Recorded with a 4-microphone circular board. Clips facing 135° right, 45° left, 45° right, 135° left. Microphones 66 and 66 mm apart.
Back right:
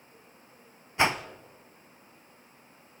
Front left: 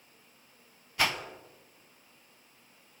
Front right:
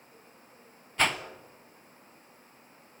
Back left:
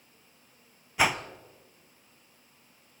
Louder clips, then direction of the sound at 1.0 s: Back right 4 dB, back left 2 dB; 155° right.